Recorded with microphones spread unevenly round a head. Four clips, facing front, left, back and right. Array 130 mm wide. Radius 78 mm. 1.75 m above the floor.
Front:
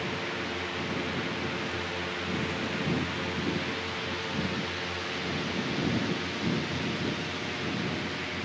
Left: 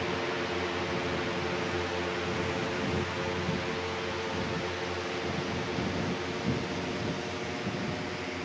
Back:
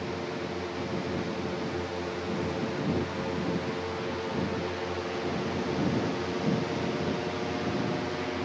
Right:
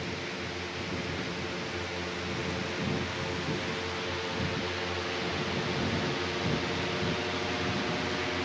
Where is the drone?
120° left; by 8.5 s 165° right.